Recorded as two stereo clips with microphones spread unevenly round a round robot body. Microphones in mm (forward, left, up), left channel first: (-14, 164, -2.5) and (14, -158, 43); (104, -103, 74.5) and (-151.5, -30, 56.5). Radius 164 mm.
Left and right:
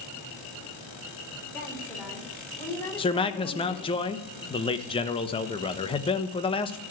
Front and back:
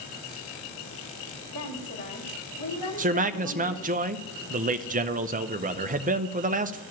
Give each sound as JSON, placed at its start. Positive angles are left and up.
{"t": 1.5, "sound": "a woman speaking", "azimuth_deg": 10, "distance_m": 3.5}
{"t": 3.0, "sound": "a man speaking", "azimuth_deg": 145, "distance_m": 0.9}